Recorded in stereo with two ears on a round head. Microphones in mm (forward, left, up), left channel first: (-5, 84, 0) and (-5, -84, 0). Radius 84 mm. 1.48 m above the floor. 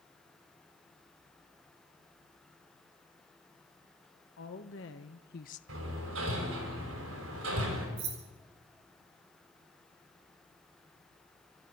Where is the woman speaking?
80° left, 1.6 m; by 5.6 s 40° left (ahead or behind), 0.7 m.